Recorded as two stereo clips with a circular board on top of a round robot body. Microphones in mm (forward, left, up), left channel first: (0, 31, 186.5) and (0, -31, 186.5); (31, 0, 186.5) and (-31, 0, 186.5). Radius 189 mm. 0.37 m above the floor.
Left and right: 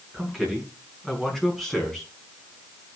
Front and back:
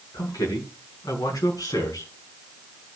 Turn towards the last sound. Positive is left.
turn(degrees=5)